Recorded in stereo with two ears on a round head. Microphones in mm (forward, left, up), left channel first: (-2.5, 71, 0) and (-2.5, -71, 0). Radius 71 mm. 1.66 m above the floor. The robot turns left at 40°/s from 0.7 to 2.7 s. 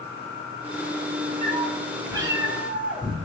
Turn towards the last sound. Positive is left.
turn(degrees=-170)